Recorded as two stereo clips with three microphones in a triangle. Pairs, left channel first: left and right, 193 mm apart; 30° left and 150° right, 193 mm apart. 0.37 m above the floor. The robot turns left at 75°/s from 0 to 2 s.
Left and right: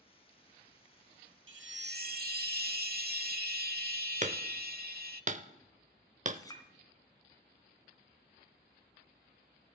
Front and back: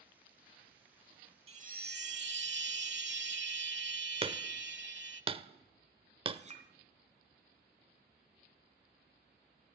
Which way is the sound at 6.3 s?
160° left.